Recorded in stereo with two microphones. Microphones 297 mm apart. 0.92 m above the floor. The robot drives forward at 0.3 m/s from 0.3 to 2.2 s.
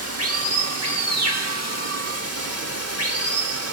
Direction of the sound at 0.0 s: 55° right (ahead or behind).